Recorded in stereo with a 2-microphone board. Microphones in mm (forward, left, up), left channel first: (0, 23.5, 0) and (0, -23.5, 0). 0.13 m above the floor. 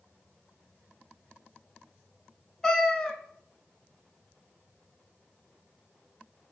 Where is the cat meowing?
15° left (ahead or behind), 0.5 m.